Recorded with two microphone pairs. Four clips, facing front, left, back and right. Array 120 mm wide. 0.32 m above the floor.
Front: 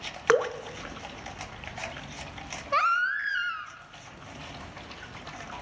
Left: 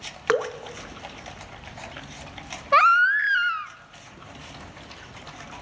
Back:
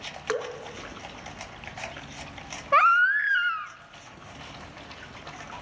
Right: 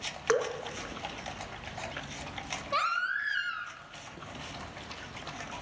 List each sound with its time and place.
0.3 s dripping: 35° left, 0.6 m
2.7 s a baby crying: 115° left, 0.5 m